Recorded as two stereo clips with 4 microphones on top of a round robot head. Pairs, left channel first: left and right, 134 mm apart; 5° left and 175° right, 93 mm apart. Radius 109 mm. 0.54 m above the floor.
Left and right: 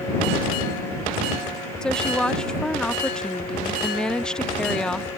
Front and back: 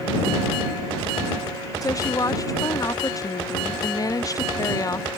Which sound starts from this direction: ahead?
A woman speaking, at 1.8 s.